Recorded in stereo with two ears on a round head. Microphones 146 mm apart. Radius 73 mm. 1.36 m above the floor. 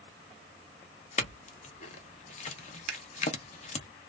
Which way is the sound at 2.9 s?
50° right (ahead or behind).